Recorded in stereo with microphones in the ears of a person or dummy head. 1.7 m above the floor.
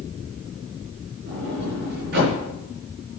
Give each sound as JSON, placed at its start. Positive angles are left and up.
{"t": 1.3, "sound": "a sliding door", "side_deg": -55, "distance_m": 4.5}